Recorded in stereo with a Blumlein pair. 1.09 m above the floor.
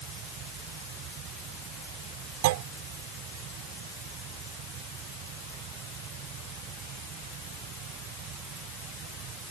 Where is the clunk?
50° right.